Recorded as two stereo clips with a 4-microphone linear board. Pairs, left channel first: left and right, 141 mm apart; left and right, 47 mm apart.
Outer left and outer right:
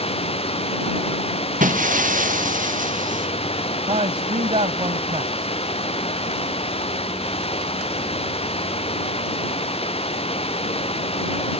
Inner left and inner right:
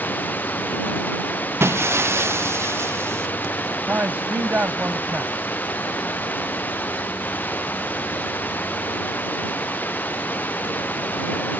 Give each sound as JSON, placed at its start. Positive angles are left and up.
{"t": 0.0, "sound": "running water", "side_deg": 50}
{"t": 1.6, "sound": "breaking glass", "side_deg": -90}
{"t": 3.9, "sound": "a man speaking", "side_deg": -55}